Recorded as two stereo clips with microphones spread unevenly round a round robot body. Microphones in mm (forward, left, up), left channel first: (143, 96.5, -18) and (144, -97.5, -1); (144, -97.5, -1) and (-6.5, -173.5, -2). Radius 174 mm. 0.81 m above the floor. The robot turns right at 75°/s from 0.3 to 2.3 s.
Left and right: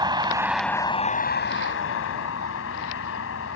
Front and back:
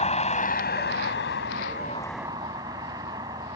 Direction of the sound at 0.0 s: 20° right.